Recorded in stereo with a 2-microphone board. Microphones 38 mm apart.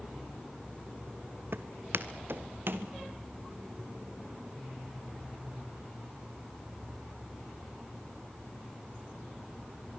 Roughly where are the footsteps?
Right.